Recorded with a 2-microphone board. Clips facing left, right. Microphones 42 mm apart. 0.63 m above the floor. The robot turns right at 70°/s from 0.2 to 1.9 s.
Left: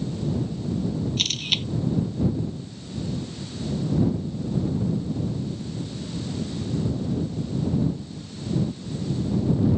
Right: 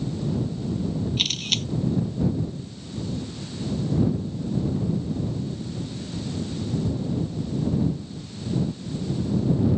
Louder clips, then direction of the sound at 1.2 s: Even; 10° right (ahead or behind).